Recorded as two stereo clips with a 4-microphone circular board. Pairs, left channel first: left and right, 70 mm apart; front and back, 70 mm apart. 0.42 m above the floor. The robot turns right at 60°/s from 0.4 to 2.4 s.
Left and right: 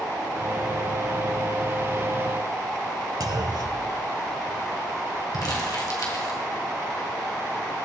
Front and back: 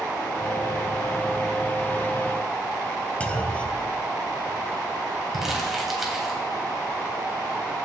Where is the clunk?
70° right, 0.6 m.